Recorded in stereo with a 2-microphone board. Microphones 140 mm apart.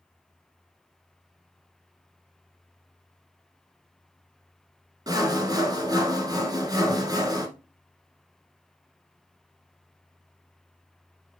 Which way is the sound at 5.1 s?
25° right (ahead or behind).